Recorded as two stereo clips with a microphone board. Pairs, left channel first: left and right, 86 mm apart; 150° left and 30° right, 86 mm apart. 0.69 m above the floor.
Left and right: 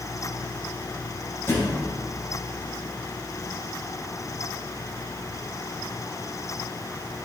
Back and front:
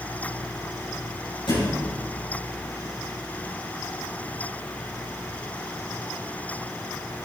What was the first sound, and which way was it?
A thud, 150° left.